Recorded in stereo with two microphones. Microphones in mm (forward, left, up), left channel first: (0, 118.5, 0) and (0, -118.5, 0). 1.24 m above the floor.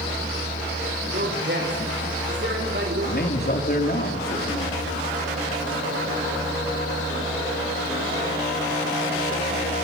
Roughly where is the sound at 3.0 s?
Left.